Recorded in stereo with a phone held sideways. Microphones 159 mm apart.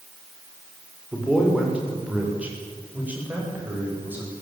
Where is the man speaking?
5° right (ahead or behind), 6 m; by 4.3 s 10° right (ahead or behind), 9.5 m.